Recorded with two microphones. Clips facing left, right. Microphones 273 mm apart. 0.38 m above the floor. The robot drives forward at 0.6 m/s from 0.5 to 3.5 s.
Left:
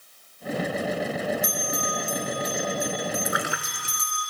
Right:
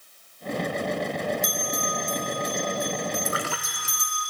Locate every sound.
1.4 s a bell: 45° right (ahead or behind), 2.5 m; by 4.2 s 30° right (ahead or behind), 3.5 m
3.2 s a splash: 15° left (ahead or behind), 1.0 m